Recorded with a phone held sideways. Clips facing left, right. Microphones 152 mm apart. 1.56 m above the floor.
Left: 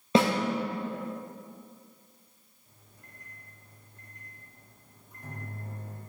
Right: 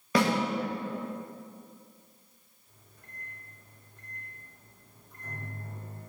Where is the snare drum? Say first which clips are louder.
Left 3 dB; 25° left (ahead or behind), 1.0 m.